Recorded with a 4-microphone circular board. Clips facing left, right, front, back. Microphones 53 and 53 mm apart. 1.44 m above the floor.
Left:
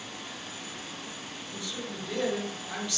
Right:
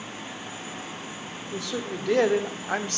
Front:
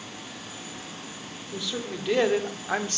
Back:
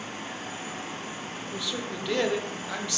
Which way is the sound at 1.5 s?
90° right.